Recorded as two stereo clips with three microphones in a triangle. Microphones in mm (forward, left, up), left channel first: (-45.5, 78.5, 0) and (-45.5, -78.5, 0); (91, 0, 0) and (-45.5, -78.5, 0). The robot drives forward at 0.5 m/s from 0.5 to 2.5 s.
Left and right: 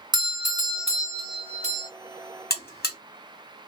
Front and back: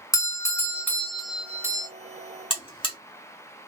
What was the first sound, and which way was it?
A doorbell, 35° right.